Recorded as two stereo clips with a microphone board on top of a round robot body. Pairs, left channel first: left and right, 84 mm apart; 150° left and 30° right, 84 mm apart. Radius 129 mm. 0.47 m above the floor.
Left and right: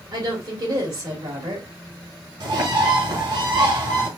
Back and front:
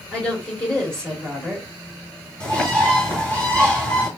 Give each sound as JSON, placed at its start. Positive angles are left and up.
{"t": 0.1, "sound": "a woman speaking", "azimuth_deg": -135, "distance_m": 2.5}
{"t": 2.4, "sound": "a bird", "azimuth_deg": -135, "distance_m": 2.5}